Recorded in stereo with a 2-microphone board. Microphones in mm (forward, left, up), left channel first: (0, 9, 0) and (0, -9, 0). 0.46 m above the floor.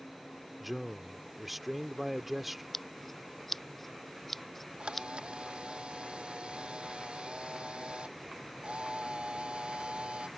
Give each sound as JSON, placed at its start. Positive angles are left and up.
{"t": 0.6, "sound": "a man speaking", "side_deg": -5}
{"t": 2.7, "sound": "scissors", "side_deg": 10}
{"t": 4.8, "sound": "a camera shutter", "side_deg": -70}